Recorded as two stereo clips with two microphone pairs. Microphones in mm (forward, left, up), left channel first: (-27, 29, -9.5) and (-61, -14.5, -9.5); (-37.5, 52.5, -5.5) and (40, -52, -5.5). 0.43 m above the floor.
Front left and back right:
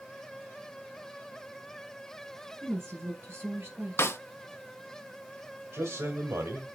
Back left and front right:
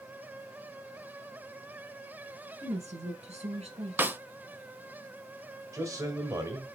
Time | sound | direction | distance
2.6 | a woman speaking | 85° right | 5 m
4.0 | a snare drum | 20° left | 0.8 m
5.7 | a man speaking | 115° right | 1.5 m